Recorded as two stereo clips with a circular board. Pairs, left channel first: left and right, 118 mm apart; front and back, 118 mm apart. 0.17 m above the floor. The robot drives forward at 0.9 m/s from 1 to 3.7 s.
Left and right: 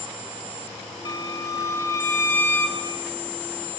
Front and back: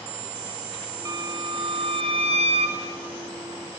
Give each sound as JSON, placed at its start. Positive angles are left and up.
{"t": 1.1, "sound": "a violin", "azimuth_deg": 130, "distance_m": 1.2}